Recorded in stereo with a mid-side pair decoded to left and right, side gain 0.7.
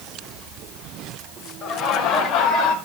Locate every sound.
1.6 s laughter: 40° left, 5.5 m; by 2.8 s 60° left, 5 m